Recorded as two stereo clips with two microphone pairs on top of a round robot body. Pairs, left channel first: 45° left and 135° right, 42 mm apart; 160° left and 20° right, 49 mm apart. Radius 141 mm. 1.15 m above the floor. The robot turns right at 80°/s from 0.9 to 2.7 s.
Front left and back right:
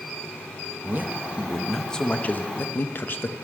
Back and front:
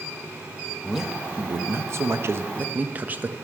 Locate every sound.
0.8 s a man speaking: 110° right, 0.9 m; by 3.3 s 35° left, 0.9 m